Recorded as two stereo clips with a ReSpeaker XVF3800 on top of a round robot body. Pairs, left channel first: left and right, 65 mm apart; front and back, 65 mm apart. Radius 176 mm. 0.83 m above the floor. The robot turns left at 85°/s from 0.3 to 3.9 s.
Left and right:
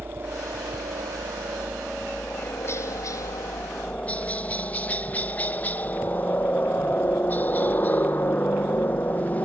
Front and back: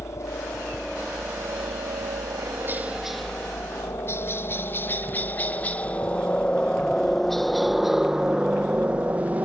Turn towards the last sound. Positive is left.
turn(degrees=135)